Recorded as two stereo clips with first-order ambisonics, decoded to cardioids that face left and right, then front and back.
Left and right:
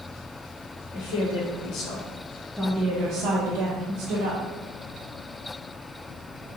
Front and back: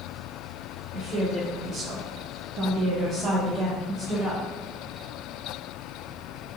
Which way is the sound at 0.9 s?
110° left.